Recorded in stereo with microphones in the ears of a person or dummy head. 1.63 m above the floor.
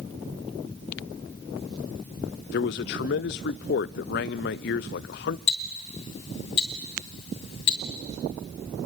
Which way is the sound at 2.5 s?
40° left (ahead or behind).